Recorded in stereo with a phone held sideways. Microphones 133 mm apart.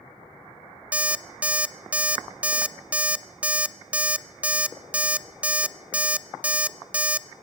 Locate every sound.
0.9 s an alarm clock: 10° right (ahead or behind), 0.5 m